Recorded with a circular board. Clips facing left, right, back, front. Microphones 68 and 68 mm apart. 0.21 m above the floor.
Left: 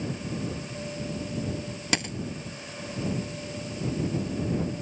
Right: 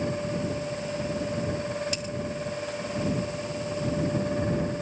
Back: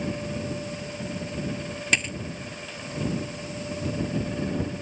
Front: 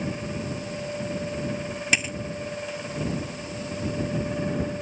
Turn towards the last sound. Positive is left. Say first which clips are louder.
# left 4 dB, even
turn(degrees=85)